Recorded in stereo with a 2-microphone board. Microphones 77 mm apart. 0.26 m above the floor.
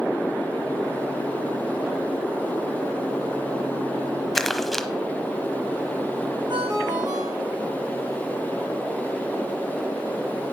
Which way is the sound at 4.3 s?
5° left (ahead or behind).